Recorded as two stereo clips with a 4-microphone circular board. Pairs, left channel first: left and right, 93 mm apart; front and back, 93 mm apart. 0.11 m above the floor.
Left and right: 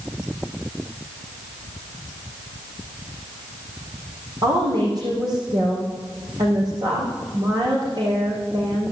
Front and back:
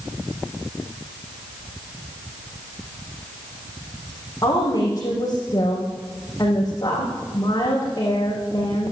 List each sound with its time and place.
4.4 s a woman speaking: 55° right, 5.5 m